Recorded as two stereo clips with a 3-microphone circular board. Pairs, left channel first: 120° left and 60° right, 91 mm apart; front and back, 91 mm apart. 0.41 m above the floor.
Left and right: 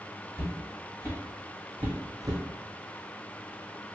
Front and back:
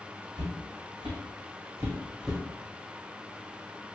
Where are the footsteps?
Straight behind, 1.4 m; by 2.4 s 90° right, 0.9 m.